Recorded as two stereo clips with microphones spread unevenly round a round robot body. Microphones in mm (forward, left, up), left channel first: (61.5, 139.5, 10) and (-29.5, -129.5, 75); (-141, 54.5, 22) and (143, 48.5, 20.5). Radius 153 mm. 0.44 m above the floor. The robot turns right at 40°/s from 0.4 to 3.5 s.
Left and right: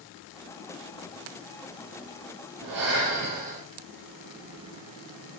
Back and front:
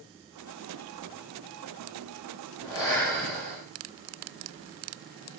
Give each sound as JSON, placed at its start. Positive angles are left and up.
{"t": 2.6, "sound": "breathing", "azimuth_deg": -80, "distance_m": 5.5}